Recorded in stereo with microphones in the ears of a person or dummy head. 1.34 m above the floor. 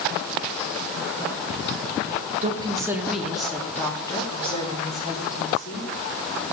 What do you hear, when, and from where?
2.4 s a woman speaking: 40° right (ahead or behind), 1.4 m; by 5.9 s 50° left (ahead or behind), 3 m